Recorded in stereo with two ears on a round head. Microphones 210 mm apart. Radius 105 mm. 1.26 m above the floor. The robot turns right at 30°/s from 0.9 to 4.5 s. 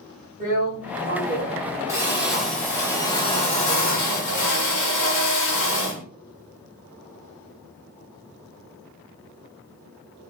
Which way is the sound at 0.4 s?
45° right.